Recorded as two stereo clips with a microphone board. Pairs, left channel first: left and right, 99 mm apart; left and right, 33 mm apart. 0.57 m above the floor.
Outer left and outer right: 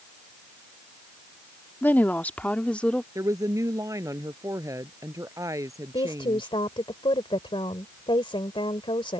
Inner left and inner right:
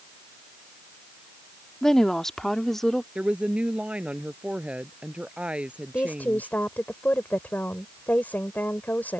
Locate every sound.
1.8 s a woman speaking: 20° left (ahead or behind); by 3.0 s 10° left (ahead or behind)
3.1 s a woman speaking: 35° right (ahead or behind)
5.9 s a woman speaking: 65° left (ahead or behind)